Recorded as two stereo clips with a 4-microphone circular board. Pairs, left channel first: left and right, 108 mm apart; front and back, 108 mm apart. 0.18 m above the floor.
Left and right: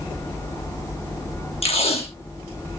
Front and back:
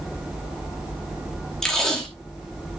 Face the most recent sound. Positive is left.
turn(degrees=85)